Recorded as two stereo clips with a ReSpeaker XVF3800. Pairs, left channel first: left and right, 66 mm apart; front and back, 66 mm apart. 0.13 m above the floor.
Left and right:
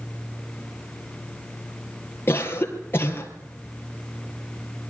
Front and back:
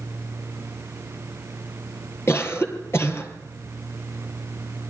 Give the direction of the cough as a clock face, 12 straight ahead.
11 o'clock.